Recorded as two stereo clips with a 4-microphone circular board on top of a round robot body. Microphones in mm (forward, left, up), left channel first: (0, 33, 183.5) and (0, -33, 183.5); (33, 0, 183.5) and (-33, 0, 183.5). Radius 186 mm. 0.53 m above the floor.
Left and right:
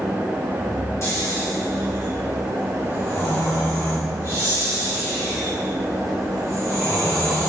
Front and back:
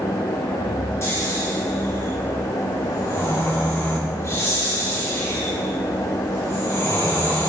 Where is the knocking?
No knocking in this recording.